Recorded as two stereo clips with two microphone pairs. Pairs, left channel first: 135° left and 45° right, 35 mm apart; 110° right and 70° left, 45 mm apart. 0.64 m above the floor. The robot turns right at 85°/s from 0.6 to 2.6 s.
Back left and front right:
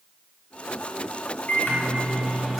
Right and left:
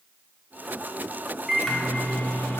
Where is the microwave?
145° left, 1.1 m; by 2.6 s 120° right, 1.1 m.